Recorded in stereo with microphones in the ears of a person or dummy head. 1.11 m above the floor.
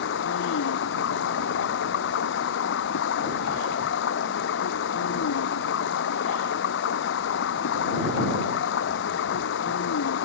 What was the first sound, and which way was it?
Running water, 60° left (ahead or behind).